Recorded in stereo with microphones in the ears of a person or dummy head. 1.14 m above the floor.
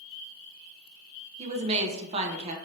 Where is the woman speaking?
25° right (ahead or behind), 0.5 m.